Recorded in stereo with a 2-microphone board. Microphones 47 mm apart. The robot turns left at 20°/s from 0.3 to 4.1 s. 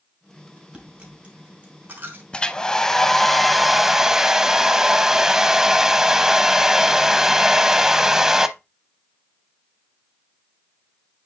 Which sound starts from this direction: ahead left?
A hair dryer, at 2.3 s.